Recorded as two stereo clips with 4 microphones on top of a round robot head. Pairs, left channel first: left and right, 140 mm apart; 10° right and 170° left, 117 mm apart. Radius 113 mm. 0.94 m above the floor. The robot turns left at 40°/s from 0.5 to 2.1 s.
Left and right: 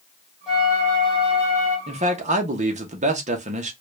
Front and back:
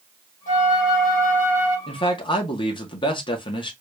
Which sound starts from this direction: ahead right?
A man speaking, at 1.9 s.